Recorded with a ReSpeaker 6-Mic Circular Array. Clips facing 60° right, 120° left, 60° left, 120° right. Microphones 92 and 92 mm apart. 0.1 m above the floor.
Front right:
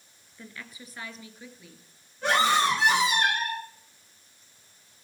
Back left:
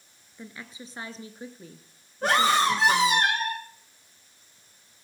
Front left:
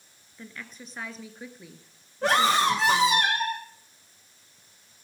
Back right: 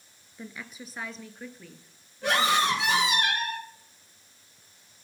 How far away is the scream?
About 7 m.